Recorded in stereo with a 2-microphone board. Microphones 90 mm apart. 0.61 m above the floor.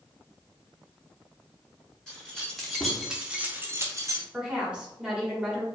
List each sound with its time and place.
2.1 s keys jangling: 10° left (ahead or behind), 1.2 m; by 4.2 s 35° right (ahead or behind), 0.7 m
4.3 s a woman speaking: 10° right (ahead or behind), 1.3 m